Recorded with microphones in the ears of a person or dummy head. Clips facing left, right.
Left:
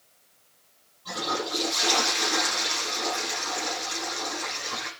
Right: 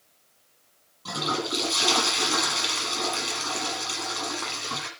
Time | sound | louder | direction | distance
1.1 | a toilet flushing | right 1 dB | 80° right | 8.5 m